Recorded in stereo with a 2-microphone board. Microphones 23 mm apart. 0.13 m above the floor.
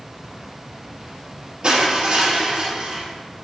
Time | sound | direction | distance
1.6 | crushing | 45° right (ahead or behind) | 3 m